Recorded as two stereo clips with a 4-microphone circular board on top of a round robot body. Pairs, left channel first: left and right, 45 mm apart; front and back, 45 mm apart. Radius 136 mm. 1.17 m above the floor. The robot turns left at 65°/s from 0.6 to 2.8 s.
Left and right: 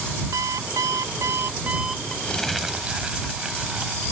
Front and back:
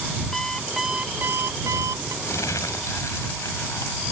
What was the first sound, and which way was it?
An alarm clock, 85° right.